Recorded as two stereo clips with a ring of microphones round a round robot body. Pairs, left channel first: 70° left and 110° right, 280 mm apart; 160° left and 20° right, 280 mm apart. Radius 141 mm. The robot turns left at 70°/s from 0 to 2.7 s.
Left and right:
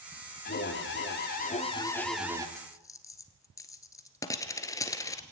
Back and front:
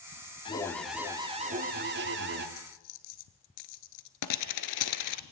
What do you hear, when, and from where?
0.5 s an alarm: 95° left, 2.5 m; by 2.5 s 45° right, 2.5 m
2.6 s a dropped coin: 155° left, 1.3 m; by 5.2 s 145° left, 1.3 m